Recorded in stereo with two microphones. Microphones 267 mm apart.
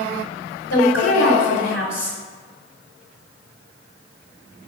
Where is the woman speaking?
55° left (ahead or behind), 4 m.